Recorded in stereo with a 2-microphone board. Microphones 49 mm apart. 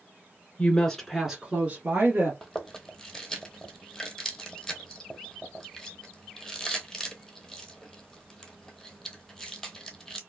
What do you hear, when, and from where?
0.6 s a woman speaking: 25° left (ahead or behind), 1.1 m; by 2.3 s 45° right (ahead or behind), 1.6 m
2.4 s chewing: 10° left (ahead or behind), 0.8 m